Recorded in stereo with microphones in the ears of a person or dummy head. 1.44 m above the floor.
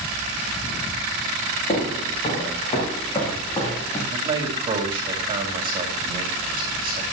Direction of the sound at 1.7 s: 35° left (ahead or behind).